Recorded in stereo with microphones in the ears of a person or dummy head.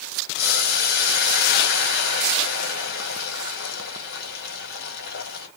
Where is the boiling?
55° left (ahead or behind), 1.3 m.